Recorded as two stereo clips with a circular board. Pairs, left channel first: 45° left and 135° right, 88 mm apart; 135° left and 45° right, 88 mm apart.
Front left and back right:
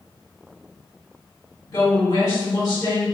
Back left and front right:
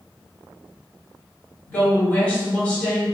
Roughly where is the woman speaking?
Ahead left.